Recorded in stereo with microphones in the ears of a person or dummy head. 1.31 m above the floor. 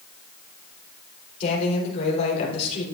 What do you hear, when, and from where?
1.4 s a woman speaking: 35° left (ahead or behind), 3.5 m